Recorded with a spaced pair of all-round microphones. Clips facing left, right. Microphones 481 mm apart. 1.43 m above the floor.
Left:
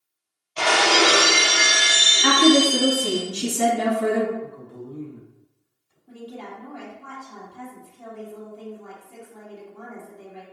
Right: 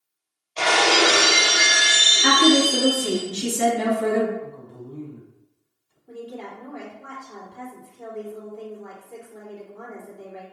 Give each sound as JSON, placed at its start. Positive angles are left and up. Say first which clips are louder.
{"t": 0.6, "sound": "breaking glass", "louder": "even", "side_deg": 35, "distance_m": 1.9}
{"t": 2.2, "sound": "a woman speaking", "louder": "left 1 dB", "side_deg": 20, "distance_m": 3.5}
{"t": 4.4, "sound": "a man speaking", "louder": "left 1 dB", "side_deg": 25, "distance_m": 2.5}
{"t": 6.1, "sound": "a woman speaking", "louder": "right 2 dB", "side_deg": 30, "distance_m": 2.5}